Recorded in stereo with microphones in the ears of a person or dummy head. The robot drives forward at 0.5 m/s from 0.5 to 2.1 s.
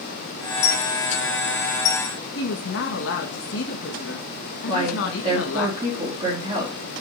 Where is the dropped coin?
65° left (ahead or behind), 2.5 m; by 2.1 s 55° left (ahead or behind), 2.5 m.